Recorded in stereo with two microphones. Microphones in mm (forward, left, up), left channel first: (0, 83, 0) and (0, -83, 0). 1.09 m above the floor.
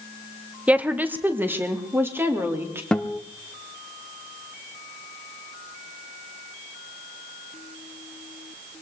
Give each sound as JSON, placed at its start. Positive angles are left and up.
{"t": 0.7, "sound": "a woman speaking", "side_deg": -10, "distance_m": 0.8}
{"t": 2.9, "sound": "a guitar", "side_deg": 5, "distance_m": 0.7}